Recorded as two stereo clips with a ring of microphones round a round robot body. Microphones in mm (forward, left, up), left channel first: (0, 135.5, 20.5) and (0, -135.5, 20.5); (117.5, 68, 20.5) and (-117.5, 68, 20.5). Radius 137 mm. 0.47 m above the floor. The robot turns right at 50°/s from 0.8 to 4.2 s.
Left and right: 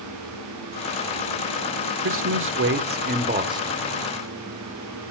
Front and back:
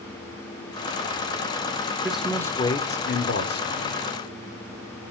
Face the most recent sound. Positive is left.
turn(degrees=10)